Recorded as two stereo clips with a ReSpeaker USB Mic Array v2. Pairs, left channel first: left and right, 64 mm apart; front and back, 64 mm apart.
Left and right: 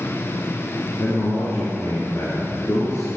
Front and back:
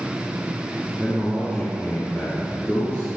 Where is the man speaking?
50° left, 3 m.